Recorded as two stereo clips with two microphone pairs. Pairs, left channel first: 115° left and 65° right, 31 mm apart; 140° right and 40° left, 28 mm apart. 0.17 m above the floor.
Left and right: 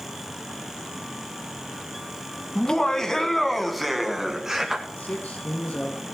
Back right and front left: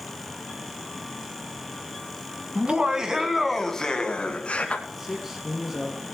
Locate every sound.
2.5 s laughter: 60° left, 1.7 m; by 4.8 s 130° right, 2 m
4.9 s a man speaking: 120° left, 2.5 m